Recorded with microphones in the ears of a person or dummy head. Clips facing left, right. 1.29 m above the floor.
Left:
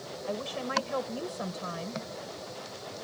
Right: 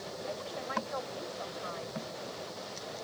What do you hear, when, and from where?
0.3 s a woman speaking: 45° left (ahead or behind)